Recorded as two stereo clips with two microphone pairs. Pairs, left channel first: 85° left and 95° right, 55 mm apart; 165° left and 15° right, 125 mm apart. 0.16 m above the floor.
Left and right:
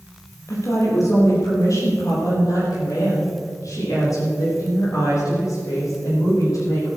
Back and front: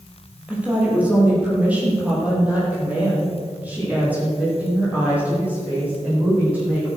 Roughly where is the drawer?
No drawer in this recording.